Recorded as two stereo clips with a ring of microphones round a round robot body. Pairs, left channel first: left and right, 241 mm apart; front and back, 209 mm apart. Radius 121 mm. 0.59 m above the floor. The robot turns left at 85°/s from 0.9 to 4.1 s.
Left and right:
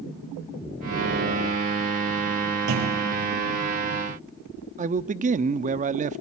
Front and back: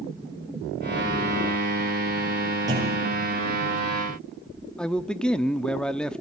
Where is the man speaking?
80° right, 0.7 m.